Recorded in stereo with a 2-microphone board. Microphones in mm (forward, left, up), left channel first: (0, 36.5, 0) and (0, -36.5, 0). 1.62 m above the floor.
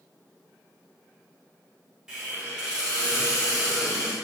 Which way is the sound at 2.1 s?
10° right (ahead or behind).